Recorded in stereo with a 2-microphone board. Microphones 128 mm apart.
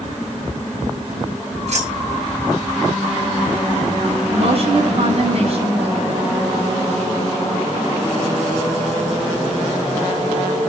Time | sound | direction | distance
1.7 | keys jangling | 60° right (ahead or behind) | 9.5 m
4.3 | a woman speaking | 50° right (ahead or behind) | 8 m